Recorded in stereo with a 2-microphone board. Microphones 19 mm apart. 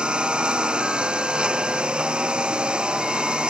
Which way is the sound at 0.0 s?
85° right.